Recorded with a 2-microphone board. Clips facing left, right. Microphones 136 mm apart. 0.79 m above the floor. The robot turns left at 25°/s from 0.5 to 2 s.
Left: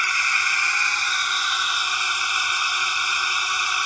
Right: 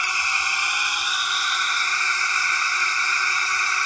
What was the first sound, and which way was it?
A drone, 160° right.